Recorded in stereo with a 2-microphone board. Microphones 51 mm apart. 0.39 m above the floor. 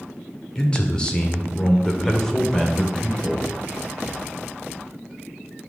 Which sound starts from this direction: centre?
A man speaking, at 0.6 s.